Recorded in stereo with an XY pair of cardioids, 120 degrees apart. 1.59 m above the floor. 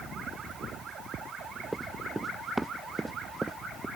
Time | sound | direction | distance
1.7 | running footsteps | 5° right | ?